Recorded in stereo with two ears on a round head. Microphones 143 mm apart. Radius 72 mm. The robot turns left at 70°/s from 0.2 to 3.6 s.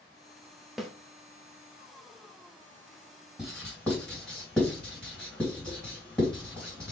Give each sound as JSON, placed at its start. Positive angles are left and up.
{"t": 0.8, "sound": "a snare drum", "side_deg": 0, "distance_m": 0.7}
{"t": 3.4, "sound": "writing", "side_deg": -10, "distance_m": 2.5}